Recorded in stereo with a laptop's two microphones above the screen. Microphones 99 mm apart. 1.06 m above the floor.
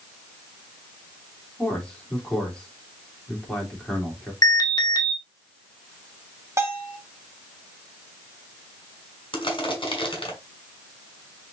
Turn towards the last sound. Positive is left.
turn(degrees=60)  # may be behind; listen again after turning